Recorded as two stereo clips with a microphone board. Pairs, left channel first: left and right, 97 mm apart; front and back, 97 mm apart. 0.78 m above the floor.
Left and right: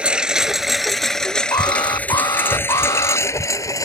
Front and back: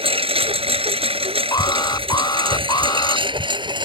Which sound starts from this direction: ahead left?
An alarm, at 1.5 s.